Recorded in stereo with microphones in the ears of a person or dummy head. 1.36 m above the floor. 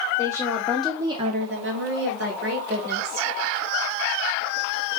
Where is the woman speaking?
20° left (ahead or behind), 1.3 m; by 3.3 s 55° right (ahead or behind), 2.5 m.